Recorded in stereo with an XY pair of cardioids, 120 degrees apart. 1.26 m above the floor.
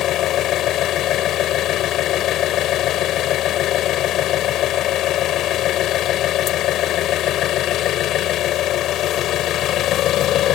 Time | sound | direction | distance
0.0 | an engine running | 70° left | ?